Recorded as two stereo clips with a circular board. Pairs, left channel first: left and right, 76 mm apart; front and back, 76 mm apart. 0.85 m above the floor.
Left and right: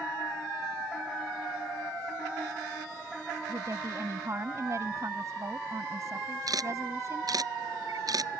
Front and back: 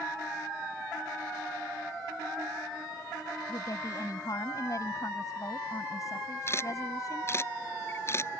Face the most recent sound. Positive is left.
turn(degrees=-55)